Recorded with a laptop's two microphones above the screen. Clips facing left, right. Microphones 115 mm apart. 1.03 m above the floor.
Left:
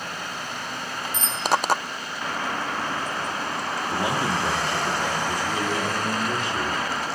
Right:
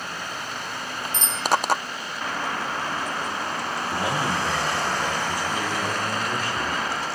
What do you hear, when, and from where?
1.1 s a bicycle bell: 65° right (ahead or behind), 6.5 m
3.9 s a man speaking: 20° left (ahead or behind), 2.5 m